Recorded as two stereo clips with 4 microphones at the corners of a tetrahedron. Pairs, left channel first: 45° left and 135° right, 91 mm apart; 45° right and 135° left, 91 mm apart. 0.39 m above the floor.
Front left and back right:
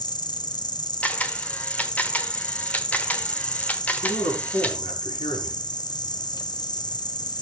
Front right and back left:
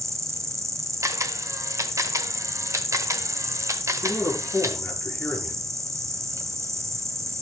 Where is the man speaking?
25° left, 5 m.